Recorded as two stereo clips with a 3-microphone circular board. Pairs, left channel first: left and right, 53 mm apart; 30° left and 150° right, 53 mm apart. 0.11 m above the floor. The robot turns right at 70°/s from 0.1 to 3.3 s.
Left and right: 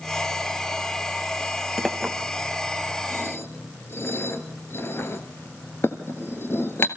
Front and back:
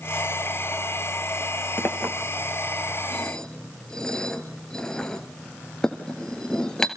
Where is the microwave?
No microwave in this recording.